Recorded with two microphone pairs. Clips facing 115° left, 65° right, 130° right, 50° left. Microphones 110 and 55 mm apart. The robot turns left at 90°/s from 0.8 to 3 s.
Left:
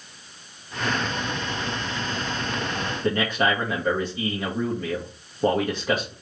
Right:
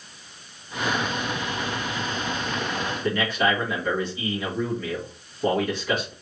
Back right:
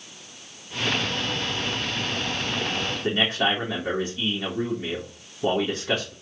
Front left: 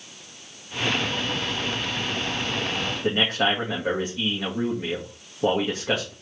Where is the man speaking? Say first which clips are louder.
Left 1 dB, front left 1 dB; 75° left, 1.4 m.